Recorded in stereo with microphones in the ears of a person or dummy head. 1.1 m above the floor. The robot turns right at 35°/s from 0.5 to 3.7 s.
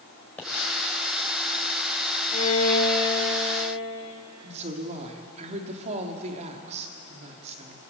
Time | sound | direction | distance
0.4 | a pop | 5° left (ahead or behind) | 5.5 m
2.3 | a violin | 35° left | 3 m
4.4 | a woman speaking | 40° right (ahead or behind) | 3 m